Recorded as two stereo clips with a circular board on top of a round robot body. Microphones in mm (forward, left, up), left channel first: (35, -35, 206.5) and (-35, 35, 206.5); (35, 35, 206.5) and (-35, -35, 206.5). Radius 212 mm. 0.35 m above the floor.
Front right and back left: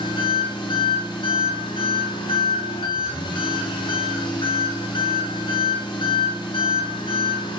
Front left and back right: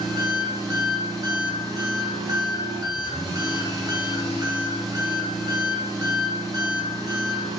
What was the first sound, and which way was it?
An engine running, 85° right.